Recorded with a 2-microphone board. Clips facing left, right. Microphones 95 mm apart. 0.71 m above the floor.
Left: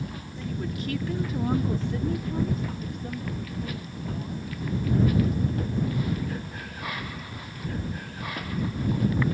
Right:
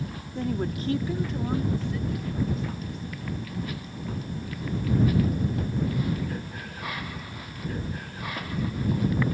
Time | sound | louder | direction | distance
0.3 | a woman speaking | right 5 dB | 60° right (ahead or behind) | ?